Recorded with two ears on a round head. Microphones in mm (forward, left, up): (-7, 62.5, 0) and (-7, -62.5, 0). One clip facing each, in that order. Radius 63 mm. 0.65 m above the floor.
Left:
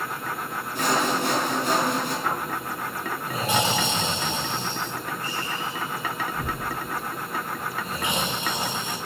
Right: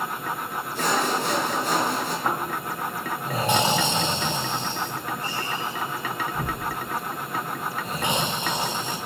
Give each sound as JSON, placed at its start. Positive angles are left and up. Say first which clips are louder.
{"t": 0.8, "sound": "sawing", "louder": "left 1 dB", "side_deg": 55, "distance_m": 3.0}
{"t": 2.2, "sound": "snoring", "louder": "right 1 dB", "side_deg": -25, "distance_m": 2.0}